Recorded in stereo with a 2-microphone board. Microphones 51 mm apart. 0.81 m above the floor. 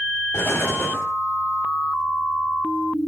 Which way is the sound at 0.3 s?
50° left (ahead or behind).